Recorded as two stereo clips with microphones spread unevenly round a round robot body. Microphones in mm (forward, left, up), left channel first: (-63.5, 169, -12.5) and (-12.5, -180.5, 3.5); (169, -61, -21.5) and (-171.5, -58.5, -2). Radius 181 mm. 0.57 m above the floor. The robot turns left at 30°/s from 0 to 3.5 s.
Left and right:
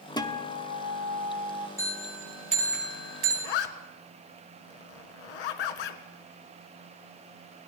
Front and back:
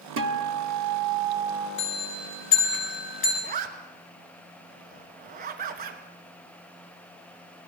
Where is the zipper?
115° left, 1.7 m; by 6.0 s 110° left, 1.7 m.